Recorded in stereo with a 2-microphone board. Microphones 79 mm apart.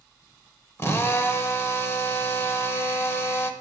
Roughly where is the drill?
Left.